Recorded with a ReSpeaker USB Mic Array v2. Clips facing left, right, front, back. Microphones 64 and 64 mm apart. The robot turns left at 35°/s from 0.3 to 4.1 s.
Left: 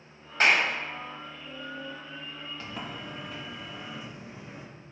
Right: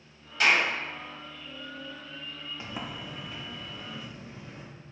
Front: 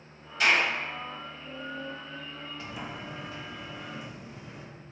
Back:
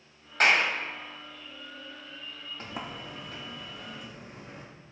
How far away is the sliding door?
About 0.9 m.